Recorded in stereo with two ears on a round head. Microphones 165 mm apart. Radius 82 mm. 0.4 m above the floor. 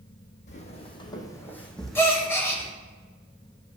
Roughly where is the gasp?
Centre.